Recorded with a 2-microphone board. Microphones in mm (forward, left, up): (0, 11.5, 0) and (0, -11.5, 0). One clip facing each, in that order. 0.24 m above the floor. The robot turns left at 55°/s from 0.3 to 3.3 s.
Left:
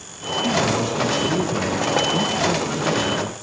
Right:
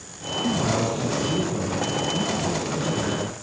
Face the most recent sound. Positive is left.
turn(degrees=15)